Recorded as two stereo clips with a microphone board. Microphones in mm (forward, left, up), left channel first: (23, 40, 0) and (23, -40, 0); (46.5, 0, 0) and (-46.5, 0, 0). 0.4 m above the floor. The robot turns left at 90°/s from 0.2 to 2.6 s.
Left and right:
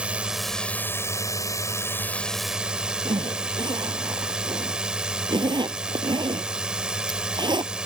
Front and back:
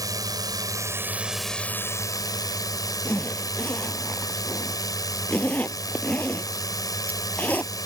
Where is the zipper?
75° right.